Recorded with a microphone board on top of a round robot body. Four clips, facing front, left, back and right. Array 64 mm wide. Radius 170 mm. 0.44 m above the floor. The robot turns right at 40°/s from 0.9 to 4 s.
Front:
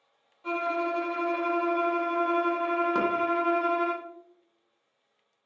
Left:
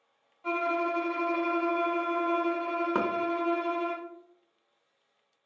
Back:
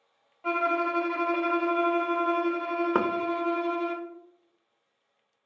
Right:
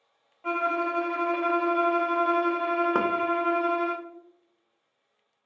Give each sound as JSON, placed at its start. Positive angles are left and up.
{"t": 0.4, "sound": "a violin", "azimuth_deg": -145, "distance_m": 1.2}
{"t": 3.0, "sound": "knocking", "azimuth_deg": -165, "distance_m": 0.6}